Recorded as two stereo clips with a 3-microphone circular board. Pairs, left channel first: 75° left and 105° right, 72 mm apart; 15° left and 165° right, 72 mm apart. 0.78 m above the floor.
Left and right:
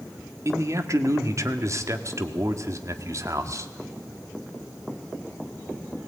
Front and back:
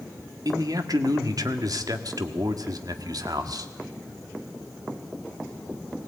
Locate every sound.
0.5 s a man speaking: 145° right, 1.5 m